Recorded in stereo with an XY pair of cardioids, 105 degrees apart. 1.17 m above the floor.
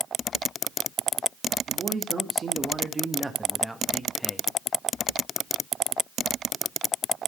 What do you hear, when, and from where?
1.7 s a man speaking: 45° right, 1.8 m; by 4.5 s 15° left, 1.2 m